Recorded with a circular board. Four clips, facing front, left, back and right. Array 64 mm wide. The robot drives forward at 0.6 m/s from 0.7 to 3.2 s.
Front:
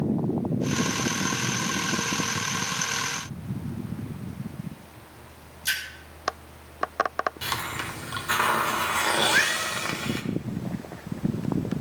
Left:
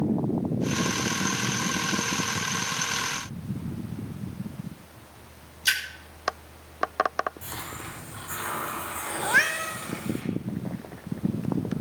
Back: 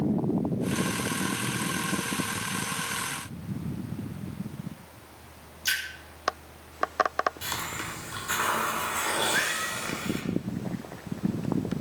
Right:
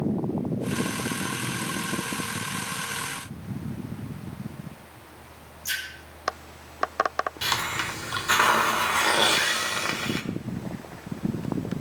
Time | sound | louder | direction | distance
5.7 | a splash | left 6 dB, even | 100° left | 6 m
7.4 | a hiss | right 10 dB, front 3 dB | 65° right | 1.9 m
9.2 | a cat meowing | left 1 dB, front 4 dB | 70° left | 2.5 m